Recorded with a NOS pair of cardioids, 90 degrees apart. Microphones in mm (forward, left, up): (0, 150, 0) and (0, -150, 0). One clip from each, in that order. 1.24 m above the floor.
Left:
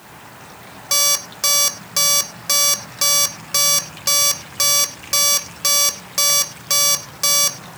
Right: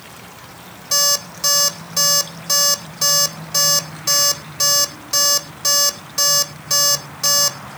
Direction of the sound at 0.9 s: 45° left.